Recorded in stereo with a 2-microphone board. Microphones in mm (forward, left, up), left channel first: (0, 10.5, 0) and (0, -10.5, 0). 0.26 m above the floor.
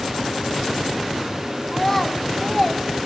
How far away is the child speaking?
About 1.7 m.